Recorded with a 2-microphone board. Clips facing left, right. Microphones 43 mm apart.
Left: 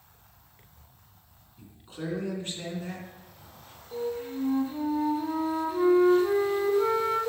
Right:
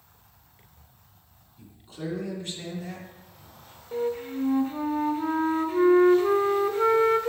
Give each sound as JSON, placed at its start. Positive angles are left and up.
{"t": 1.6, "sound": "a man speaking", "side_deg": 25, "distance_m": 2.5}
{"t": 3.9, "sound": "a flute", "side_deg": -50, "distance_m": 0.9}